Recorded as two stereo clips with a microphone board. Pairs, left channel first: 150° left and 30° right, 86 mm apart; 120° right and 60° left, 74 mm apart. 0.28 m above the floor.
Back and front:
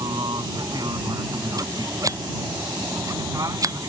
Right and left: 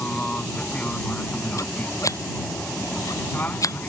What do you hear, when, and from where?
0.0 s an aircraft: 50° right; by 3.9 s 65° right
1.6 s scissors: 80° right